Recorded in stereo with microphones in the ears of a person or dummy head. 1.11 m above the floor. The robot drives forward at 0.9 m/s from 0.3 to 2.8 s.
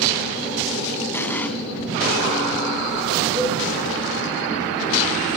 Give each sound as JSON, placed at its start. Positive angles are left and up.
{"t": 1.1, "sound": "an explosion", "side_deg": 15, "distance_m": 3.0}
{"t": 3.4, "sound": "a cowbell", "side_deg": -25, "distance_m": 5.5}